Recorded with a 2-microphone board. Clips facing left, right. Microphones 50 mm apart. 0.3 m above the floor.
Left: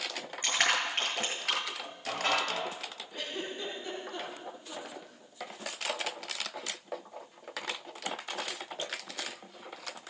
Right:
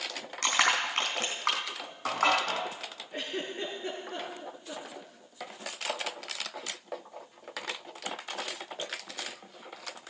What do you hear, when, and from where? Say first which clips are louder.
0.4 s crushing: right 2 dB; 75° right (ahead or behind), 4 m
3.1 s a giggle: right 3 dB; 35° right (ahead or behind), 7 m